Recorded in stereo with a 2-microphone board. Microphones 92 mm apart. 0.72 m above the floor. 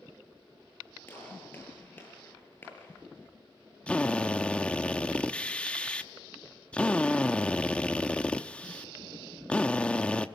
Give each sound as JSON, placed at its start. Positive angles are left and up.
{"t": 1.1, "sound": "a gunshot", "side_deg": 20, "distance_m": 7.5}
{"t": 3.9, "sound": "a drill", "side_deg": 15, "distance_m": 1.0}